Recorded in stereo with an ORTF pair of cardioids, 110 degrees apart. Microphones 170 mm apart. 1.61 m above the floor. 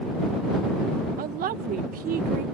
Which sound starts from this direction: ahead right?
A woman speaking, at 1.2 s.